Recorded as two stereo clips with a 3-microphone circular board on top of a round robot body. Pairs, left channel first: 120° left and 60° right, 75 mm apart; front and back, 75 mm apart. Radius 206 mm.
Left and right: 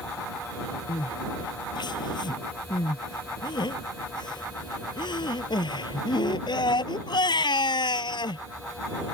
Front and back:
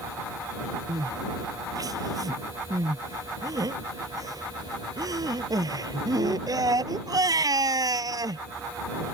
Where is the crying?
140° left.